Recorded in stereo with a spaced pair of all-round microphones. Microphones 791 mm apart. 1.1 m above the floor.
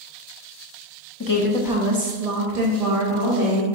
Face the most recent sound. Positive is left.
turn(degrees=-80)